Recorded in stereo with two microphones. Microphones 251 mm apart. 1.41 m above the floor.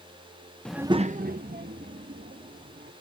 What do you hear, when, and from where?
0.7 s a child speaking: 5° left (ahead or behind); by 2.9 s 35° right (ahead or behind)